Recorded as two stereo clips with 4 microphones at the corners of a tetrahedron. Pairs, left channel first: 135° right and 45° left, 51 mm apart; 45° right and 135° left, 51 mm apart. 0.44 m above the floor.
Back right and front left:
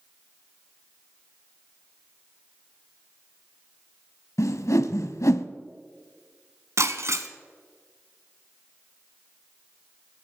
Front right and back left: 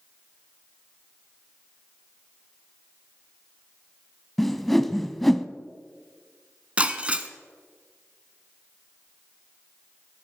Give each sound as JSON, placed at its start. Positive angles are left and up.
{"t": 4.4, "sound": "a whoosh", "azimuth_deg": -130, "distance_m": 0.7}
{"t": 6.8, "sound": "breaking glass", "azimuth_deg": 70, "distance_m": 1.0}